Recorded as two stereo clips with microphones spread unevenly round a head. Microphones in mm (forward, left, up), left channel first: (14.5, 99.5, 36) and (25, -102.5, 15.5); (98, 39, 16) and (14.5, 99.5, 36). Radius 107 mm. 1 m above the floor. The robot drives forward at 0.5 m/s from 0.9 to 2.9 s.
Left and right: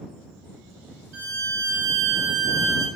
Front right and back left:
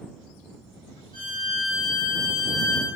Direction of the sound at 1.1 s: 70° right.